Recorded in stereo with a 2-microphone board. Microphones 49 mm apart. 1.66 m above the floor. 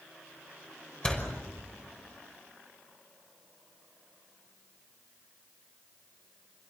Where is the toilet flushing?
No toilet flushing in this recording.